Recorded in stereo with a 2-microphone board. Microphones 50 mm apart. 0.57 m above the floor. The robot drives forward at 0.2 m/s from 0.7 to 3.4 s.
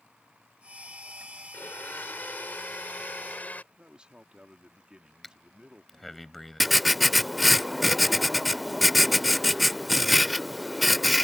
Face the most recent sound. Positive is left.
turn(degrees=0)  # may be behind; listen again after turning